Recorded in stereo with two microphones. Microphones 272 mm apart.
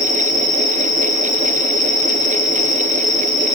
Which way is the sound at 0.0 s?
15° left (ahead or behind).